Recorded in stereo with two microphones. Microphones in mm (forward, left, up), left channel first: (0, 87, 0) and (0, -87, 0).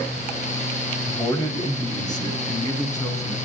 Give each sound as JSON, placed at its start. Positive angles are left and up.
{"t": 1.1, "sound": "a man speaking", "side_deg": 20, "distance_m": 1.0}